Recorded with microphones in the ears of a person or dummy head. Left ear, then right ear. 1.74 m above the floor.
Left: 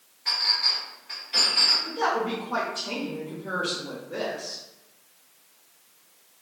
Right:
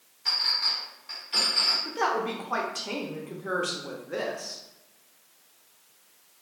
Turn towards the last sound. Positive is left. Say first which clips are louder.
# left 1 dB
turn(degrees=-40)  # may be behind; listen again after turning